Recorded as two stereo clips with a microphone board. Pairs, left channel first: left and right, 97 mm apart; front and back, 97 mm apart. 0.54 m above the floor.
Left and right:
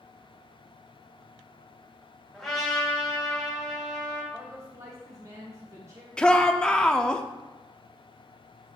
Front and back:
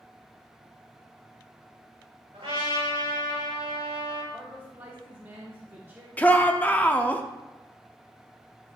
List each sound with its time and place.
2.3 s a trumpet: 175° left, 3 m
4.3 s a man speaking: 125° right, 1.1 m
6.2 s a shout: 25° left, 0.6 m